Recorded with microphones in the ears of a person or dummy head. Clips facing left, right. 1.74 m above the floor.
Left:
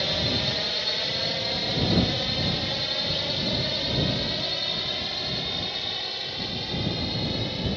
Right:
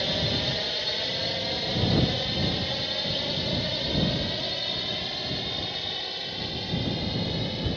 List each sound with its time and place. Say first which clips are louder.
0.0 s a drone: even; 5° right (ahead or behind); by 7.8 s centre (ahead or behind)